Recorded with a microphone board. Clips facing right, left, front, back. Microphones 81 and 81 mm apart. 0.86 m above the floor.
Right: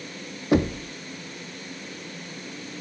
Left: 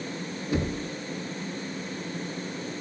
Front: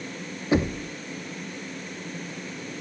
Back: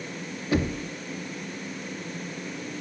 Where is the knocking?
65° right, 0.8 m.